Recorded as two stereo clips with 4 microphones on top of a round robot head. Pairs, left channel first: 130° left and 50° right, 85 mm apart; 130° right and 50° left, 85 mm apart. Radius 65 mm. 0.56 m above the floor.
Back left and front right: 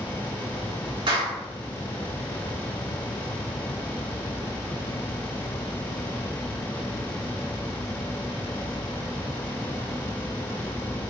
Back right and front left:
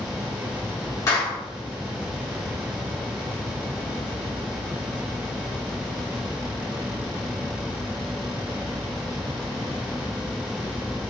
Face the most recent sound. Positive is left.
turn(degrees=-80)